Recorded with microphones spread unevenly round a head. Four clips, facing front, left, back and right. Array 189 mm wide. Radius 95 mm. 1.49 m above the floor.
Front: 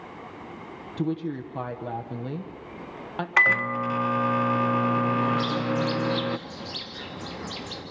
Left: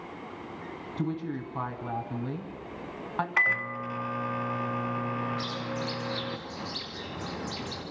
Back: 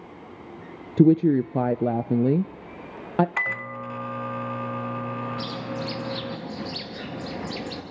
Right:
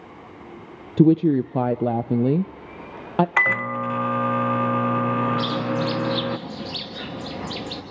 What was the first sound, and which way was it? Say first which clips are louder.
A woman speaking: right 17 dB, back 12 dB; 125° right.